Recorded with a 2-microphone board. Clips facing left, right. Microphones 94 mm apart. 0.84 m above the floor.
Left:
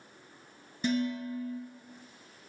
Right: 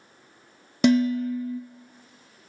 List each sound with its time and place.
0.8 s dishes clattering: 80° right, 0.6 m